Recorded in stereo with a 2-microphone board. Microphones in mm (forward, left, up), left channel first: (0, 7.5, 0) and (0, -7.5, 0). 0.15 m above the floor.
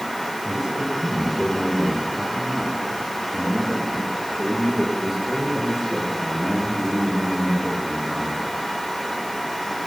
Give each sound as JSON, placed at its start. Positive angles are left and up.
{"t": 0.5, "sound": "a man speaking", "side_deg": -40, "distance_m": 9.5}